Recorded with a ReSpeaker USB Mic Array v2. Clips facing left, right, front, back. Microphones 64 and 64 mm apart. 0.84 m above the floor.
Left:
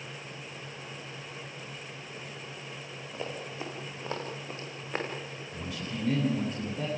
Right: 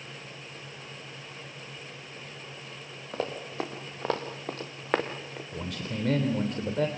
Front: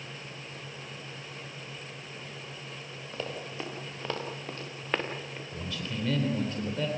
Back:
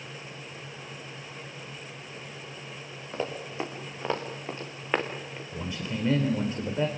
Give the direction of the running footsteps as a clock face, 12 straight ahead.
4 o'clock.